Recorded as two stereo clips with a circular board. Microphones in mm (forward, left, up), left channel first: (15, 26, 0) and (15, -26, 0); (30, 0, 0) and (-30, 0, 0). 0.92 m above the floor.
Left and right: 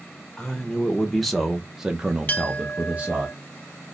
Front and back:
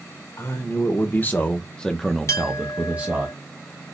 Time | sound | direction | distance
0.4 | a man speaking | 20° left | 1.1 m
2.3 | a clink | 30° left | 0.6 m